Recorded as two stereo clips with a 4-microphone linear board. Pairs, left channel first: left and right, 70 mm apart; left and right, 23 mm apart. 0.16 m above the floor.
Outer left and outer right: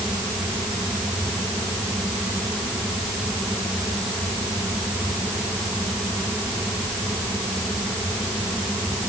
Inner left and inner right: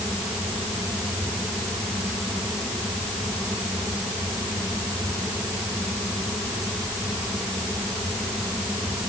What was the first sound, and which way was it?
Only background noise.